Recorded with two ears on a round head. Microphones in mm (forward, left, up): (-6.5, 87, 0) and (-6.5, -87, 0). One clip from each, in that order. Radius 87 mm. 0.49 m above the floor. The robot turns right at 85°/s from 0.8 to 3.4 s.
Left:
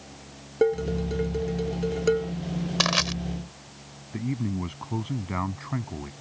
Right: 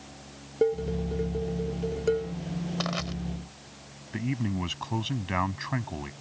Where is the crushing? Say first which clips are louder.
Left 10 dB; 60° left (ahead or behind).